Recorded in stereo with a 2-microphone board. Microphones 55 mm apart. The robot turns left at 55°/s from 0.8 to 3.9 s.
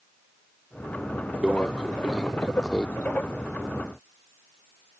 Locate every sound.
1.4 s a microwave: 20° right (ahead or behind); by 2.9 s 10° left (ahead or behind)